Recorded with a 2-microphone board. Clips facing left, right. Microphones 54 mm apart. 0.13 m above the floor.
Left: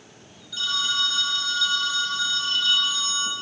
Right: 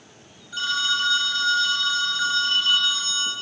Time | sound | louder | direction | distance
0.5 | a phone ringing | right 3 dB | 40° right (ahead or behind) | 1.0 m